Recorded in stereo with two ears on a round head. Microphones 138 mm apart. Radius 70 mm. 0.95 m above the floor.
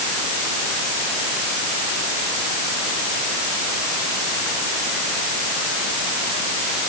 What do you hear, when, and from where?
Only background noise.